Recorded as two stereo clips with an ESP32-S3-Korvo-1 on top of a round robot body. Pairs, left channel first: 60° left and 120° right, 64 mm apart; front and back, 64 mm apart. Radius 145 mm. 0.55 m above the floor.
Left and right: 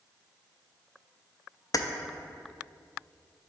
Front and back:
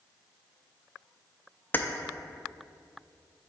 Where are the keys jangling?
55° left, 0.5 m.